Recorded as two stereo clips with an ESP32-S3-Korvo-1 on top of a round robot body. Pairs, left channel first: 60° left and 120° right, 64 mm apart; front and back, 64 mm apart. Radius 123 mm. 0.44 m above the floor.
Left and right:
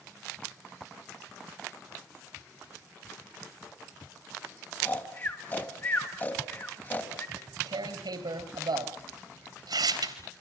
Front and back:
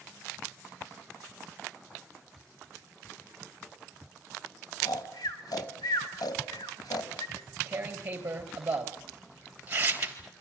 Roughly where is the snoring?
Ahead.